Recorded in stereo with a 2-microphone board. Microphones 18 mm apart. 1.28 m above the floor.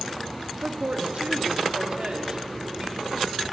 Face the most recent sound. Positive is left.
turn(degrees=-35)  # may be behind; listen again after turning